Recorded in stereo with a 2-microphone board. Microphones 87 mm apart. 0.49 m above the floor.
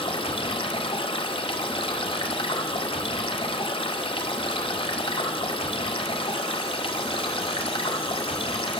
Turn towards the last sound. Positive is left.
turn(degrees=85)